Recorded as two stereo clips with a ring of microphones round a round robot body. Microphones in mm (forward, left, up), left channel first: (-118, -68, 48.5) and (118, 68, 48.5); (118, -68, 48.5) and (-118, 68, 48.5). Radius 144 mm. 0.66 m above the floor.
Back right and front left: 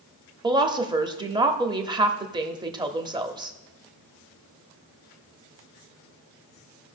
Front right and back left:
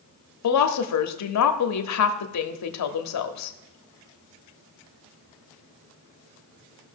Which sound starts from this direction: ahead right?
A woman speaking, at 0.4 s.